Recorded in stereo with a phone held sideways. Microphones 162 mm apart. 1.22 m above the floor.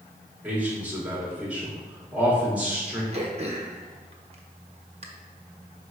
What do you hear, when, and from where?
0.4 s a man speaking: 10° right (ahead or behind), 3 m
3.1 s throat clearing: 40° right (ahead or behind), 1.0 m